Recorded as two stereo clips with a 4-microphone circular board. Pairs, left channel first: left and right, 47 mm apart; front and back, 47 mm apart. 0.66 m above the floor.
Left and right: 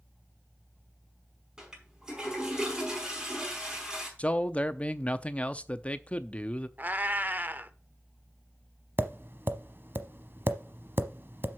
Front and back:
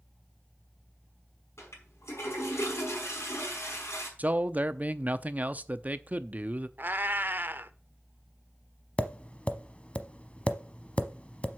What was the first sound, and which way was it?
A toilet flushing, 10° right.